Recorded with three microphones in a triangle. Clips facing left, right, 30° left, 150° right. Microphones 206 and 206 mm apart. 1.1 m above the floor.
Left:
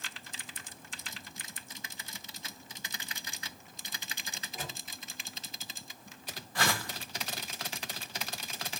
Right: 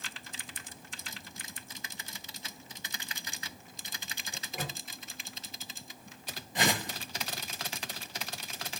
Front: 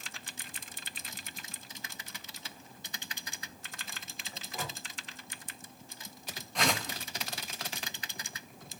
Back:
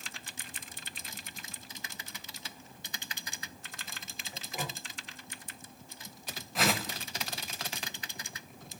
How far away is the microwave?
About 1.3 m.